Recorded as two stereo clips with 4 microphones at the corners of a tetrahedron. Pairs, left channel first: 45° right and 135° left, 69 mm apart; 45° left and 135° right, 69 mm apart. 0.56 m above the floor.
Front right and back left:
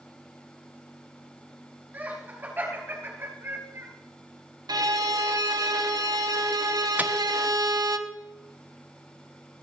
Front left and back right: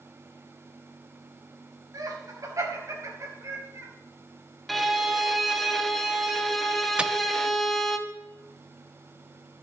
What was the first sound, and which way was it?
Laughter, 165° right.